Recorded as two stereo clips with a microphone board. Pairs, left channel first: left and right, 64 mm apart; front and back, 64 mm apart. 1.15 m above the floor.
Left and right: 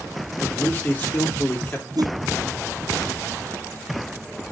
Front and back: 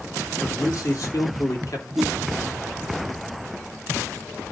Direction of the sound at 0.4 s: 30° left.